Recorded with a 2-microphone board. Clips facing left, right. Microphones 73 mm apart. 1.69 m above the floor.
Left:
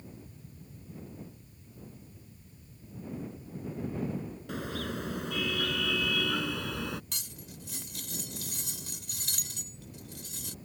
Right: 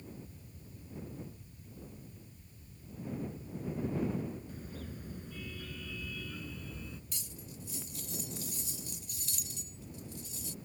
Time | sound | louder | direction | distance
4.5 | a car horn | left 10 dB | 85° left | ?
7.1 | cutlery clinking | left 2 dB | 75° left (ahead or behind) | ?